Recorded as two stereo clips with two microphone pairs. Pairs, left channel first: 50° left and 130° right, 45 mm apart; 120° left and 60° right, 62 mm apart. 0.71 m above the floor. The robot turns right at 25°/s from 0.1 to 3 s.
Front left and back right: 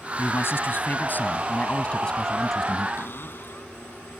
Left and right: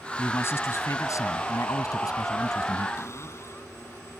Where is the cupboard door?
80° left.